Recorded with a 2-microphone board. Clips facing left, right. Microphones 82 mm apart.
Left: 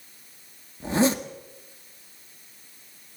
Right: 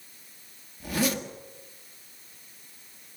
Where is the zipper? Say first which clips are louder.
Left 6 dB; 25° left (ahead or behind), 1.7 m.